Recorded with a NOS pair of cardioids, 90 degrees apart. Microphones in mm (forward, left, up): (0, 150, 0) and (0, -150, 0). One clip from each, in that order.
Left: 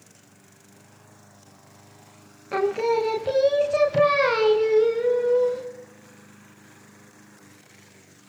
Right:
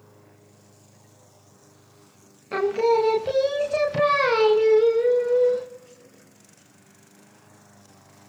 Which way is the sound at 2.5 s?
5° right.